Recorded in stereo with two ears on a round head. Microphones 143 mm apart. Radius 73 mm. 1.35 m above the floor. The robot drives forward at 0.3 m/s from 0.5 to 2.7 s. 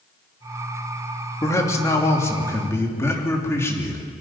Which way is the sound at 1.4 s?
20° left (ahead or behind).